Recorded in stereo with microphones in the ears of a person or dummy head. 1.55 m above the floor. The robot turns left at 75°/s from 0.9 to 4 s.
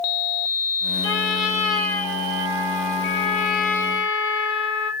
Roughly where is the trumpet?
Ahead.